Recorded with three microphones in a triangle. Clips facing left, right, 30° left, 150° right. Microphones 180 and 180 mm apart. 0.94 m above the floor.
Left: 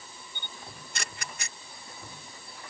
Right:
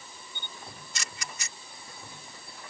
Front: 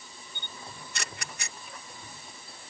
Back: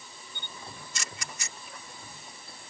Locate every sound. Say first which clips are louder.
0.3 s a camera shutter: right 1 dB, even; 55° left